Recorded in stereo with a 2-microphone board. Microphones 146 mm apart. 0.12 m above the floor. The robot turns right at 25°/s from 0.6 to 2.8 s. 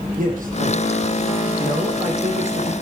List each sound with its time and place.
0.2 s a man speaking: 70° right (ahead or behind), 4.5 m; by 2.7 s 40° right (ahead or behind), 4.5 m